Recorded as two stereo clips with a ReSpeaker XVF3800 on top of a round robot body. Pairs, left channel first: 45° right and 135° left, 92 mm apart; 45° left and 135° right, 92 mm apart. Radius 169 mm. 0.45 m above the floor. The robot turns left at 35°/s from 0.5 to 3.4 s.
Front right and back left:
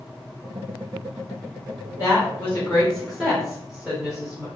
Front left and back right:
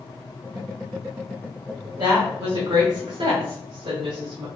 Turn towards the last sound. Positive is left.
turn(degrees=-145)